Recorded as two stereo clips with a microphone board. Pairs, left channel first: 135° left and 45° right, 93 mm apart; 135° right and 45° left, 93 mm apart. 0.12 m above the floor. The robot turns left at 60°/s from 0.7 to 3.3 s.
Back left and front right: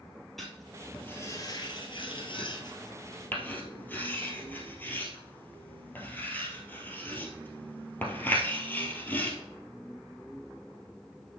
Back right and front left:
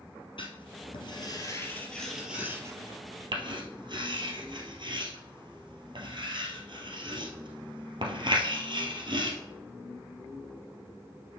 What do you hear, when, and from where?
0.4 s writing: 135° right, 1.9 m; by 9.4 s 65° left, 1.9 m